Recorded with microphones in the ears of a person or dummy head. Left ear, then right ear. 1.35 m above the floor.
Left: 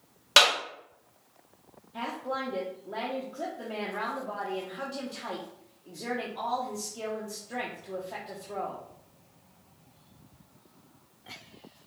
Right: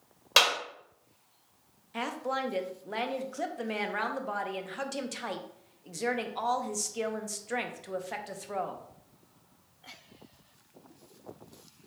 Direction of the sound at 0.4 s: Centre (ahead or behind).